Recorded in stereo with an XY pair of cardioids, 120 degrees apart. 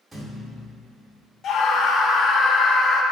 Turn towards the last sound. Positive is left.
turn(degrees=55)